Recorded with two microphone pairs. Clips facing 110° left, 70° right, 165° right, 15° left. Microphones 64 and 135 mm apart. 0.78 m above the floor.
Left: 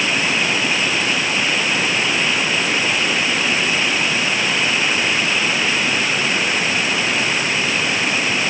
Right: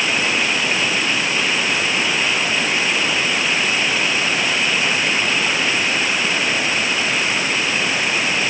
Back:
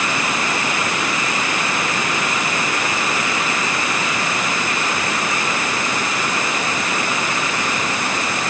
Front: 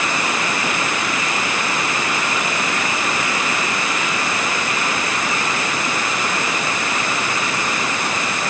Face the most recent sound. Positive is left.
No sound to turn to.